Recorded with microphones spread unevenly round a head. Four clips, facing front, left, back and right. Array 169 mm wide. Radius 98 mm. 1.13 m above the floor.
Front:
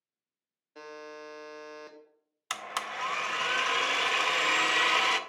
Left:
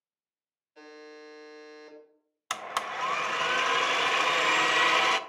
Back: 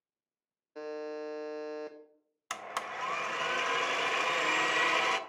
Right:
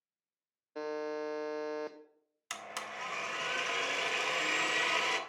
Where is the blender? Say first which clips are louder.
Left 10 dB, front 2 dB; 70° left, 0.6 m.